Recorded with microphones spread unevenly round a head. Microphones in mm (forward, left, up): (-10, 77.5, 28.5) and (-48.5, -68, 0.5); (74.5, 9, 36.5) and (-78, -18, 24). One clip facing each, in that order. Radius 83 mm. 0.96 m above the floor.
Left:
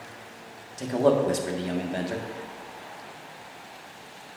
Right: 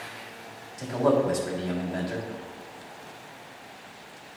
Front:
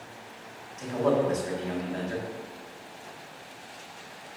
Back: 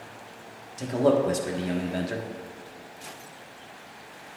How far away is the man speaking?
About 1.6 m.